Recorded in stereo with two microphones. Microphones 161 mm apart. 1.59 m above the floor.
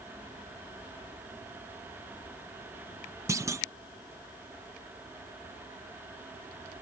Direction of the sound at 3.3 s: 15° right (ahead or behind).